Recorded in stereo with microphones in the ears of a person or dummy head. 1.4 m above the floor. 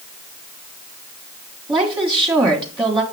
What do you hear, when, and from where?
1.7 s a woman speaking: 15° right (ahead or behind), 1.2 m